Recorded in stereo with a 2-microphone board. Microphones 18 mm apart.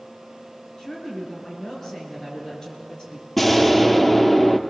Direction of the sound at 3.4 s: 5° left (ahead or behind).